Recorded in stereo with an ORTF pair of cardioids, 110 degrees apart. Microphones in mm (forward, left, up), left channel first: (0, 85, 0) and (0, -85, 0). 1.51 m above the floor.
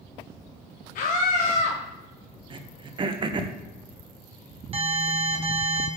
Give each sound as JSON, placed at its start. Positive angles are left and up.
{"t": 0.9, "sound": "a scream", "azimuth_deg": 55, "distance_m": 1.0}
{"t": 2.5, "sound": "throat clearing", "azimuth_deg": -30, "distance_m": 0.9}
{"t": 4.7, "sound": "an alarm", "azimuth_deg": -35, "distance_m": 1.9}